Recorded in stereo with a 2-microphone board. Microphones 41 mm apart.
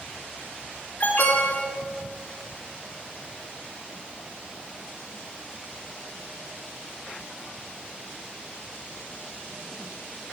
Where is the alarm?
50° left (ahead or behind), 3.5 m.